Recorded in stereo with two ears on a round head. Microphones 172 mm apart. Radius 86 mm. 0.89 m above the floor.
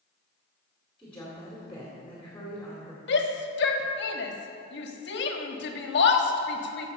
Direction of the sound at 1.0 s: 10° left (ahead or behind).